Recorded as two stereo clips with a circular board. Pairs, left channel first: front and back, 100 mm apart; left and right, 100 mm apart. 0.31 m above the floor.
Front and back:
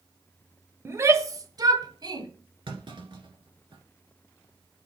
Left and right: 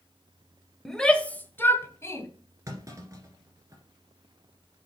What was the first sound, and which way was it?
A shout, 175° left.